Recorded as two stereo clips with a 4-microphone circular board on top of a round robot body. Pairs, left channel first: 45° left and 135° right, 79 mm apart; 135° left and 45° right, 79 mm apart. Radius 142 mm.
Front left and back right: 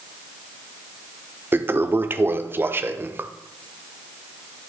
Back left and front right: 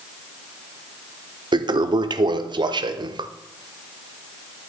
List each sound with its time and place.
1.5 s a toilet flushing: 70° right, 0.6 m